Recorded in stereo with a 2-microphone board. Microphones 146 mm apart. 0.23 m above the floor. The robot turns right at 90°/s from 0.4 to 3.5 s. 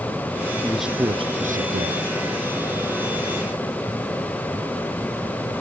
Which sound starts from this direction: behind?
A man speaking, at 0.6 s.